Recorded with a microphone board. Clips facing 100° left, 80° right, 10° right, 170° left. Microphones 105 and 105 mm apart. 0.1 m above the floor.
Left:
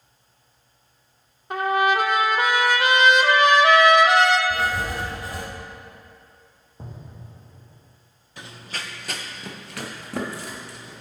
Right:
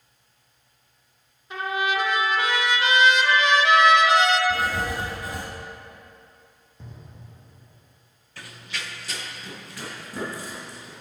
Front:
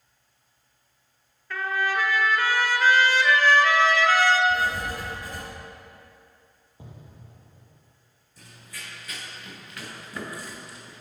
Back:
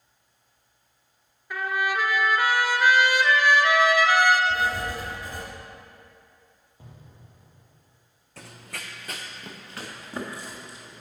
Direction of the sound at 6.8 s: 55° left.